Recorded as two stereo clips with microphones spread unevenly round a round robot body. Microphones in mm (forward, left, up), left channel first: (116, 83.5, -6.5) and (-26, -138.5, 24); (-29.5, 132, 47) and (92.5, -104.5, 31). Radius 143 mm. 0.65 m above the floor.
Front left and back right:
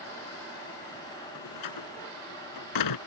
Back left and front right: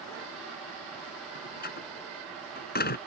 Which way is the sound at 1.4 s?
60° left.